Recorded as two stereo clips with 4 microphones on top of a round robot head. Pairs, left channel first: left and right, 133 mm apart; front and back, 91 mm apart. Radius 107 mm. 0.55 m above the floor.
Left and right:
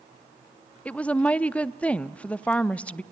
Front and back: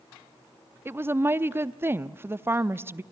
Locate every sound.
0.8 s a woman speaking: 160° left, 0.6 m